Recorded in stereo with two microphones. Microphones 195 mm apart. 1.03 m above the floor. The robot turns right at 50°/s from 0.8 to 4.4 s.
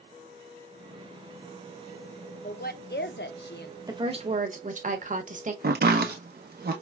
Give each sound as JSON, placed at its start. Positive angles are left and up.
{"t": 2.4, "sound": "a woman speaking", "azimuth_deg": 50, "distance_m": 0.6}
{"t": 3.9, "sound": "a woman speaking", "side_deg": -20, "distance_m": 0.9}
{"t": 5.6, "sound": "chopping", "side_deg": -55, "distance_m": 0.8}